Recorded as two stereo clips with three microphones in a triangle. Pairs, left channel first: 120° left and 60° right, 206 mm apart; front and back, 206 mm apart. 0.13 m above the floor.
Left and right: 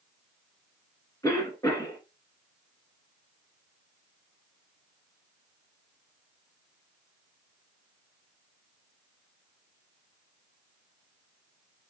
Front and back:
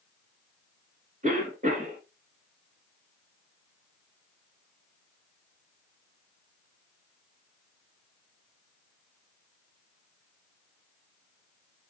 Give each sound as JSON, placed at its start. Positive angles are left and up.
{"t": 1.2, "sound": "a cough", "azimuth_deg": -175, "distance_m": 1.5}